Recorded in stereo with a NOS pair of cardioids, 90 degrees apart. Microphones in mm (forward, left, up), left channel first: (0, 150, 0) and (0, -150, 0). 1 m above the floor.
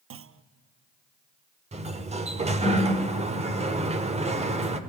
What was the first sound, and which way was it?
A clunk, 45° right.